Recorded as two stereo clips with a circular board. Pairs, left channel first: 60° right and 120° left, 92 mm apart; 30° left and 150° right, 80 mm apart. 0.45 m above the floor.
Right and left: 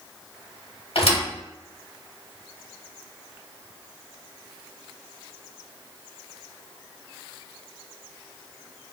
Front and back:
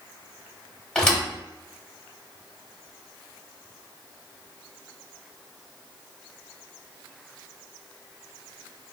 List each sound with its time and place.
0.9 s a thud: 50° right, 0.9 m